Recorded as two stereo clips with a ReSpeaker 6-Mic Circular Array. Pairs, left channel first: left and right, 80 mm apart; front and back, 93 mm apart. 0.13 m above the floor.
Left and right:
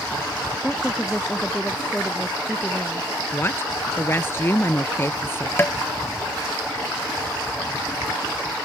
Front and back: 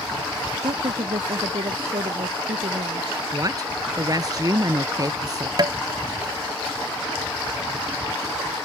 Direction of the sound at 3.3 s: 145° left.